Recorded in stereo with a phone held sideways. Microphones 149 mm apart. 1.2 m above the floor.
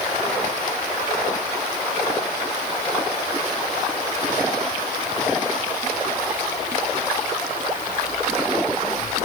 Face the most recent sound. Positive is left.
No sound to turn to.